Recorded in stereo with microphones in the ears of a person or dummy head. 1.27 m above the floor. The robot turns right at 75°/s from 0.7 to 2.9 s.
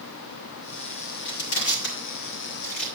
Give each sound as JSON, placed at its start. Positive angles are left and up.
{"t": 1.2, "sound": "crushing", "side_deg": 55, "distance_m": 3.0}